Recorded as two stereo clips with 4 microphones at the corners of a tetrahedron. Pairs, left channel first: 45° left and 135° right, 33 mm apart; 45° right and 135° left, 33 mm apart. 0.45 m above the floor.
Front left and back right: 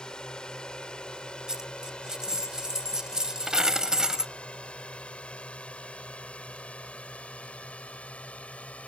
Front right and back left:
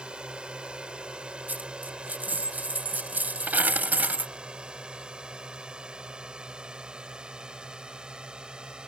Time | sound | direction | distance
0.0 | a drone | 95° left | ?
1.5 | a dropped coin | 155° left | ?